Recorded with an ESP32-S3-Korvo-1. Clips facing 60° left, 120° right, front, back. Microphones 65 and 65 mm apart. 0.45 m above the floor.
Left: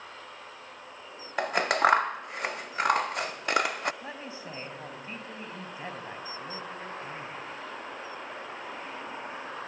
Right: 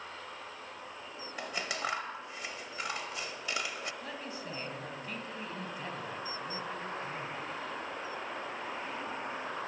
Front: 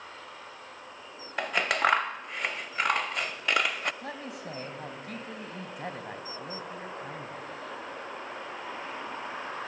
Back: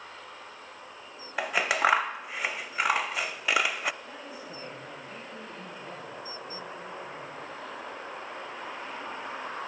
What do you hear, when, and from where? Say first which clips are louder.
1.4 s scissors: left 13 dB, back 1 dB; 95° left, 0.6 m
4.0 s a man speaking: left 1 dB, front 3 dB; 5° right, 3.5 m